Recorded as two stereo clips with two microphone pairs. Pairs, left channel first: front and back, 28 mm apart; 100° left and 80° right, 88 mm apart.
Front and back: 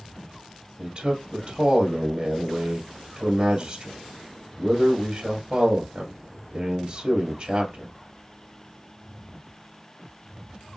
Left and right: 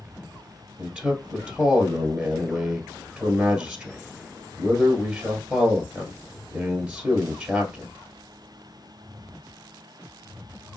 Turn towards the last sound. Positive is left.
turn(degrees=-145)